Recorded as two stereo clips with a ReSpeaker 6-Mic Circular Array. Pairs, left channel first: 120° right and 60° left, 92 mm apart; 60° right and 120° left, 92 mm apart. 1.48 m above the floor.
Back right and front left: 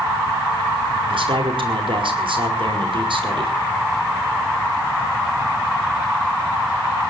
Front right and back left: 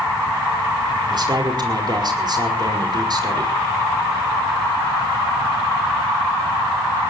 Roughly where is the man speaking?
Left.